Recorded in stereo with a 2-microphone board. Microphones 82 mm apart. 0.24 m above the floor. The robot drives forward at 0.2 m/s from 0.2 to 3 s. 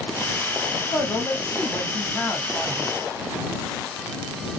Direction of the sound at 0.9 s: 30° left (ahead or behind).